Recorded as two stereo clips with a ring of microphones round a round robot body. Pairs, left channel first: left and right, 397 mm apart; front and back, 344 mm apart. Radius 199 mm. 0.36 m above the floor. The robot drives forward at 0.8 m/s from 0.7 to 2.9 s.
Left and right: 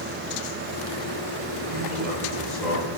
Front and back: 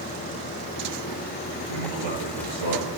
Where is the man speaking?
Straight behind, 5.5 m.